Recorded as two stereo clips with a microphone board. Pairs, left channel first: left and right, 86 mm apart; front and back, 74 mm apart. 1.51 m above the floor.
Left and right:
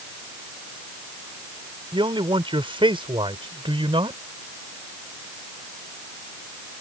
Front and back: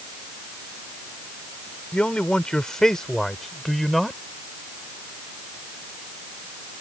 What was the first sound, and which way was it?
A man speaking, 75° right.